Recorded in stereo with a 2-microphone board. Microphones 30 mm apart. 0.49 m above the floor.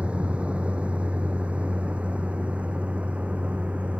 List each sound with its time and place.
0.0 s a vehicle: 40° right (ahead or behind); by 4.0 s 45° right (ahead or behind)